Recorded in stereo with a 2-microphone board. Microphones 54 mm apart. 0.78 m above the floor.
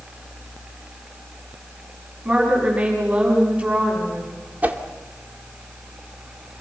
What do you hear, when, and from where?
2.2 s a woman speaking: 25° right (ahead or behind), 7 m
4.6 s a whoosh: 30° right (ahead or behind), 1.7 m